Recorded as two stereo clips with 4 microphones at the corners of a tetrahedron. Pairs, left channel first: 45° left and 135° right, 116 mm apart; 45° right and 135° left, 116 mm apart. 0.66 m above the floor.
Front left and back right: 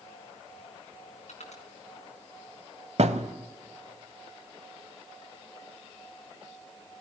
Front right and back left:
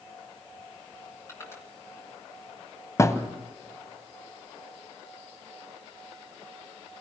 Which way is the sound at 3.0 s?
110° right.